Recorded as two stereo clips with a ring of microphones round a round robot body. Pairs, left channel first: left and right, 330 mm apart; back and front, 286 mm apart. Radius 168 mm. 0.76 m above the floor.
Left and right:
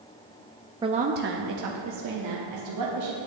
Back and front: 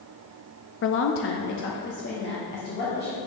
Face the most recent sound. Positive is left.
turn(degrees=-120)